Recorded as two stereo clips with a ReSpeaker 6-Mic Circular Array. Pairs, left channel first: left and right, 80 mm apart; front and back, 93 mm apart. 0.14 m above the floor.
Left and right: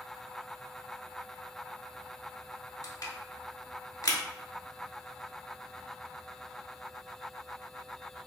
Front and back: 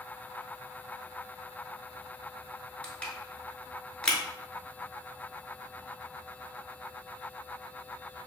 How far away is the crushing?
About 0.8 m.